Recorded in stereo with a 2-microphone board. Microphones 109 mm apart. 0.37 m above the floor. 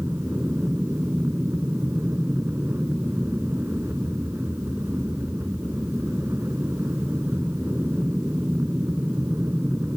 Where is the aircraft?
20° right (ahead or behind).